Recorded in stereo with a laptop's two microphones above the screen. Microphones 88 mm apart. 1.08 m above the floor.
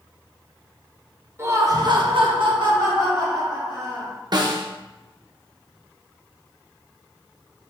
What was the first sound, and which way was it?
Laughter, 30° right (ahead or behind).